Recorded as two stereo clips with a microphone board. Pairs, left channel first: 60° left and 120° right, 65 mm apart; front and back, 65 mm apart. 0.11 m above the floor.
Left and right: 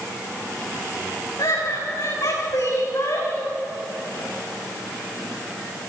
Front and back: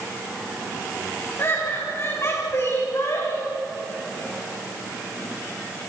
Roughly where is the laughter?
Ahead left.